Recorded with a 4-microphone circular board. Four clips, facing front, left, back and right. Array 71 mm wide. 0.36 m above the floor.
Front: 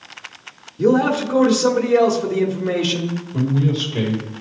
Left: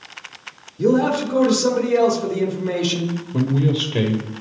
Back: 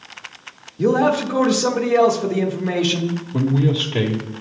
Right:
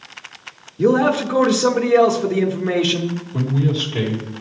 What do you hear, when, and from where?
0.8 s a man speaking: 90° right, 1.1 m
3.3 s a man speaking: 145° left, 1.2 m